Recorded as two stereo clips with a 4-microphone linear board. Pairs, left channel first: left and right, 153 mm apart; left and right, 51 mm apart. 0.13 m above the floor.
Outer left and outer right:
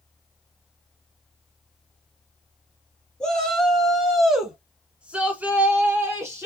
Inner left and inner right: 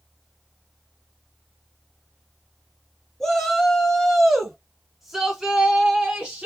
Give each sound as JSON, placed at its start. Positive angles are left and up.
{"t": 3.2, "sound": "a shout", "side_deg": 5, "distance_m": 2.0}